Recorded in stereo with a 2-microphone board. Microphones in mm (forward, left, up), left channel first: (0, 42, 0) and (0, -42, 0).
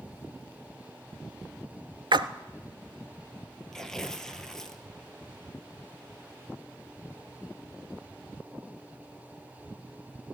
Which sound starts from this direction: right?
A splash, at 2.1 s.